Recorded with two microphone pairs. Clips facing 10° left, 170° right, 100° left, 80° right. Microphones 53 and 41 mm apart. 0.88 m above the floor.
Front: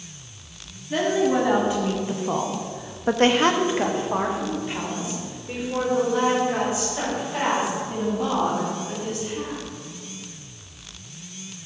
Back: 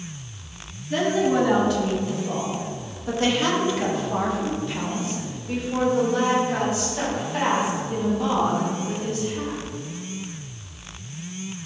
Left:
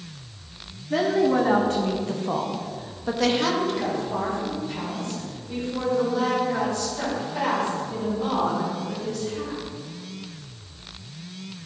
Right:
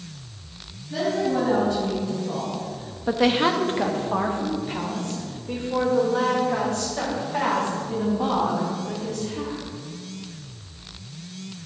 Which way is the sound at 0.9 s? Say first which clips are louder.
Even, left 3 dB; 90° left.